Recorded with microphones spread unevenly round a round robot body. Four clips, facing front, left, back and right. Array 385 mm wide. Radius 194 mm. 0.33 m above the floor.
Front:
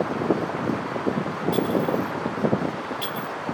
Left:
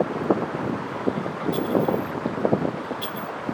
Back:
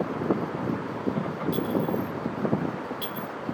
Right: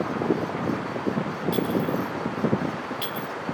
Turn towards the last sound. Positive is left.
turn(degrees=-140)